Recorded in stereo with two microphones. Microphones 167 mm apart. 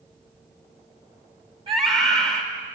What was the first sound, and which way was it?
A scream, 35° right (ahead or behind).